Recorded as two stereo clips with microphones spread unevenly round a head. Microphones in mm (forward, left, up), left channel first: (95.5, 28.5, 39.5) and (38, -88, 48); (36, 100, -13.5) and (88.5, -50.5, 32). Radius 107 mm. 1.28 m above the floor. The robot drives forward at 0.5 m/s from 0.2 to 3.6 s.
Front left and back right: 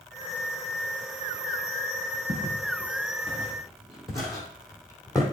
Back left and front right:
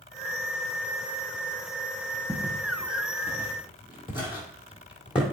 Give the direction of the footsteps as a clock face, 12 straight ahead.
5 o'clock.